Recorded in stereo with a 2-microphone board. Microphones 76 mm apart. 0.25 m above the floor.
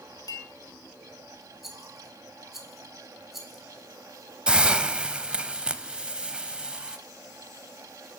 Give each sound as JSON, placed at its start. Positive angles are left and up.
{"t": 0.3, "sound": "a clink", "side_deg": 55, "distance_m": 1.5}
{"t": 1.6, "sound": "a rattle", "side_deg": -5, "distance_m": 1.4}
{"t": 4.5, "sound": "a hiss", "side_deg": -15, "distance_m": 0.6}